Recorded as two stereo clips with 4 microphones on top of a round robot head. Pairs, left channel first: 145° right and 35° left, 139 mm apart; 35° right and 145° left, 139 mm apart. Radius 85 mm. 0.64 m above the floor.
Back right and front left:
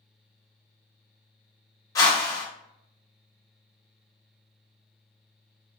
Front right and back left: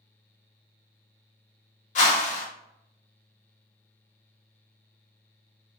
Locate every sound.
1.9 s a whoosh: 75° right, 0.6 m